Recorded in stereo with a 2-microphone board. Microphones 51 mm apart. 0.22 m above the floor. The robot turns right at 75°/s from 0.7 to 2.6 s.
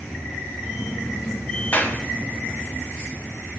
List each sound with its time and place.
1.7 s a clap: 35° left (ahead or behind), 1.4 m; by 2.0 s 30° left (ahead or behind), 1.4 m